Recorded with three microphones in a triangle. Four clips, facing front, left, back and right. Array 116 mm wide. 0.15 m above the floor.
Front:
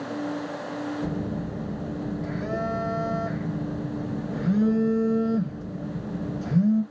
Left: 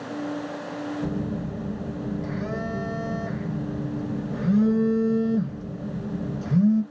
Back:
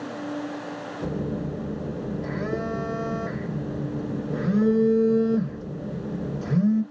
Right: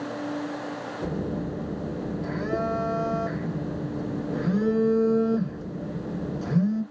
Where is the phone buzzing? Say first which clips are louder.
Left 1 dB, back 1 dB; 140° right, 3.5 m.